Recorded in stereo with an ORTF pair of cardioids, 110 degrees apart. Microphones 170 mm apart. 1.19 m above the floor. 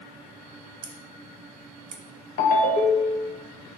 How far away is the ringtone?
About 0.7 m.